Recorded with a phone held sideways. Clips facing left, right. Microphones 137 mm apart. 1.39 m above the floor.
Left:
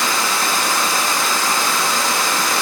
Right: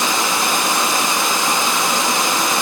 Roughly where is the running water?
Centre.